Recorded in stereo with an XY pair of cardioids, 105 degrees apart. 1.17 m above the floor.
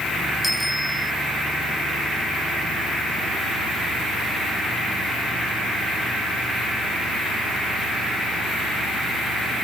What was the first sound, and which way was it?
A bicycle bell, straight ahead.